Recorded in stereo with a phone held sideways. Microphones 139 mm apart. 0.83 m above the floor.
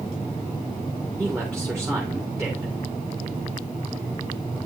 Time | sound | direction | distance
1.2 | a man speaking | 5° left (ahead or behind) | 3 m